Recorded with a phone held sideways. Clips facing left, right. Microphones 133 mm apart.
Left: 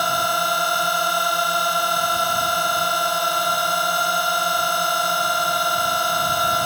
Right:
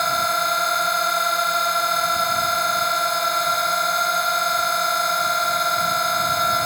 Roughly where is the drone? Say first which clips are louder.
Left 1 dB; centre.